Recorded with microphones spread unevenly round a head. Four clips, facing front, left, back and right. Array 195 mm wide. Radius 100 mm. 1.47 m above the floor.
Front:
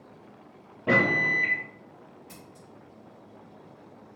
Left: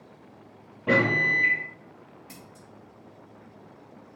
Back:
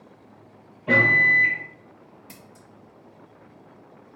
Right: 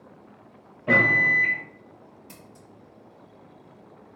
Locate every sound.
0.9 s a microwave: 30° left, 1.3 m
2.3 s scissors: 160° right, 1.2 m